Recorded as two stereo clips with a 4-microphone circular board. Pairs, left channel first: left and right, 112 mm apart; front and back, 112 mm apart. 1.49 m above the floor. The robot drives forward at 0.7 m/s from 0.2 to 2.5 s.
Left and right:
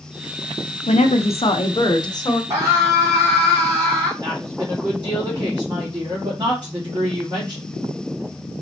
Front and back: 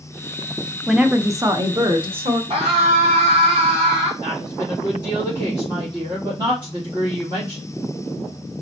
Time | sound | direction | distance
0.9 | a woman speaking | 90° left | 0.7 m
2.5 | a scream | 150° right | 3 m
4.2 | a woman speaking | 140° right | 2.5 m